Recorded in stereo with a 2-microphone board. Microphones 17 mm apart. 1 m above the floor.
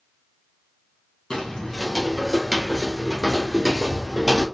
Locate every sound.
1.3 s footsteps: 55° left (ahead or behind), 1.6 m; by 4.5 s 45° right (ahead or behind), 1.3 m